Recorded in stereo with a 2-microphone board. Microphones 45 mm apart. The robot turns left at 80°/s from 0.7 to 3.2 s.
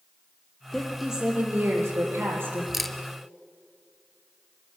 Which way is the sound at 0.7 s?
20° left.